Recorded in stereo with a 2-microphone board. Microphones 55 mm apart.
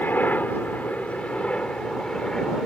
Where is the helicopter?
35° left (ahead or behind); by 2.7 s 10° left (ahead or behind).